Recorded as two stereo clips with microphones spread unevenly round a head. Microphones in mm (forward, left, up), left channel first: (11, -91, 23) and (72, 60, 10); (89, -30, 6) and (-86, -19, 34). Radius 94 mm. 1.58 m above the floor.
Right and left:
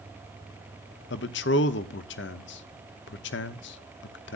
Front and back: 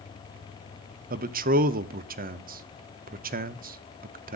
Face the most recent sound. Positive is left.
turn(degrees=-140)